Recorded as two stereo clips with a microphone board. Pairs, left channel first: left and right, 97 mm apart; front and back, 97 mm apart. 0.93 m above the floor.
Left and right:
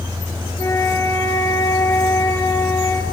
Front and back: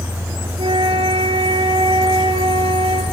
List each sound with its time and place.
0.6 s a flute: 155° left, 7.5 m